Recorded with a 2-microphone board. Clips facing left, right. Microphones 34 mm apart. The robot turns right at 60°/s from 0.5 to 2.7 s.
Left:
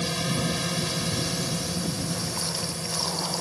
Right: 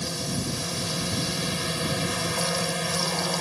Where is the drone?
145° left; by 3.4 s 80° right.